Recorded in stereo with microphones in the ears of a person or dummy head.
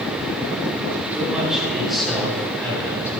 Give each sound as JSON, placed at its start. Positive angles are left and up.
{"t": 1.1, "sound": "a man speaking", "side_deg": -10, "distance_m": 5.0}